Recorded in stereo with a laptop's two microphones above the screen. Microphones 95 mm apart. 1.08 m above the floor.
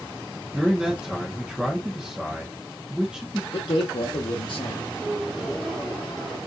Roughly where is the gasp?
Centre.